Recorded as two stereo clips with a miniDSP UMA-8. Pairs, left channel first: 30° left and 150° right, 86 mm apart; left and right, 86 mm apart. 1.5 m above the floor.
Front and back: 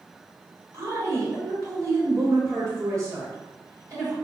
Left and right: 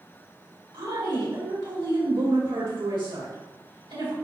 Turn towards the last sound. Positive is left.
turn(degrees=-105)